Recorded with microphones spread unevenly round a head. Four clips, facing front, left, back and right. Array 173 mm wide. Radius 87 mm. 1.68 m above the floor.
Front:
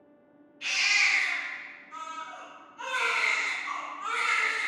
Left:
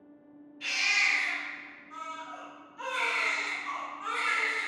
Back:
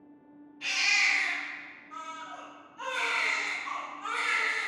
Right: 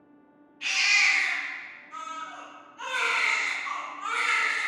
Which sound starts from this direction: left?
A baby crying, at 0.6 s.